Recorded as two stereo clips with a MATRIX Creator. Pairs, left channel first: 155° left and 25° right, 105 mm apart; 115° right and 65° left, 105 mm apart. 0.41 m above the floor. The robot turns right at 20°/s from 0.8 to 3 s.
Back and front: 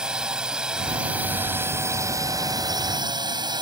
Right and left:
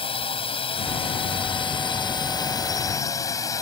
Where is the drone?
105° right; by 3.6 s 60° right.